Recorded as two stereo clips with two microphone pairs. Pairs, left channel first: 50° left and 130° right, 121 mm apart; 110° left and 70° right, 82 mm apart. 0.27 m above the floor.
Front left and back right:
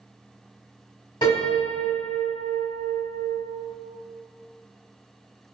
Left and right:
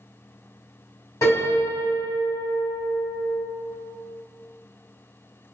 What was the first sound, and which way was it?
A piano, 75° left.